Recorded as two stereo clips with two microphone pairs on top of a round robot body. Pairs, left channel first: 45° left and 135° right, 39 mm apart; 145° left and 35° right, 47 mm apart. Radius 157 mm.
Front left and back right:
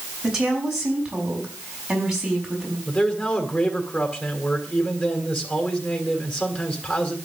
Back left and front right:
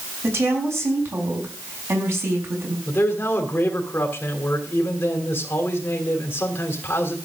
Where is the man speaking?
95° left, 2.5 m.